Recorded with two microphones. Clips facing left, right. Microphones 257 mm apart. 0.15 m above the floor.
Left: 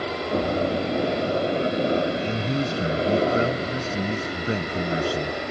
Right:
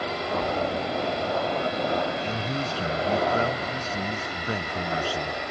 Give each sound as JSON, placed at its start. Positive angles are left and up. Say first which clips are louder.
{"t": 0.0, "sound": "a helicopter", "louder": "left 4 dB", "side_deg": 30}
{"t": 2.2, "sound": "a man speaking", "louder": "left 5 dB", "side_deg": 25}